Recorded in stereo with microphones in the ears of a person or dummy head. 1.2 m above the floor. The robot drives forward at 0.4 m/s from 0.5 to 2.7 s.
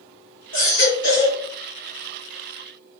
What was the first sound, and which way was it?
A baby crying, 60° left (ahead or behind).